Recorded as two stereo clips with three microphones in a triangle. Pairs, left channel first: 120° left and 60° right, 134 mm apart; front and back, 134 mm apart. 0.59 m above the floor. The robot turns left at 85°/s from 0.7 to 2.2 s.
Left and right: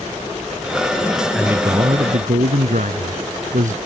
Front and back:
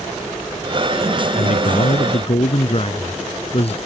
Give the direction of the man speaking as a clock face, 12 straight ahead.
11 o'clock.